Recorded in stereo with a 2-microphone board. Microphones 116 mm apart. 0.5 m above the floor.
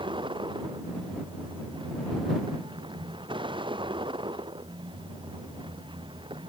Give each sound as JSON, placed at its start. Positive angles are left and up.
{"t": 0.0, "sound": "a vehicle", "side_deg": -45}